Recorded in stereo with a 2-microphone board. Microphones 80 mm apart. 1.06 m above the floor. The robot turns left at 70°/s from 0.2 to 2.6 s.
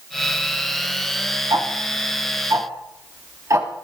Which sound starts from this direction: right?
Ticking, at 1.5 s.